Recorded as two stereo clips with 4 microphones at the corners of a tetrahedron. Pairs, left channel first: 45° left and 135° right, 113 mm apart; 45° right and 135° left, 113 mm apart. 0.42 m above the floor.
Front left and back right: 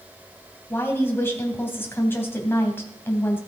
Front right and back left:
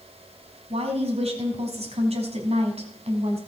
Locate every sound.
0.7 s a woman speaking: 115° left, 3 m